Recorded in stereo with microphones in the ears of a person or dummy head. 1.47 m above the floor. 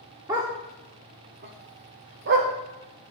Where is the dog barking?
10° right (ahead or behind), 1.1 m; by 2.5 s 55° right (ahead or behind), 1.7 m.